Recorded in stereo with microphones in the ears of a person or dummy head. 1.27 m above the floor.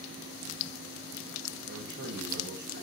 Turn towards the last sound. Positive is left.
turn(degrees=-55)  # may be behind; listen again after turning